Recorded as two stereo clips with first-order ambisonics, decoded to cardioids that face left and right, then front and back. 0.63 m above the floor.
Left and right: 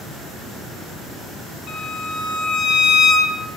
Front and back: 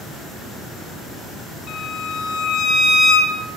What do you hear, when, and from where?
1.7 s a violin: 45° left, 1.8 m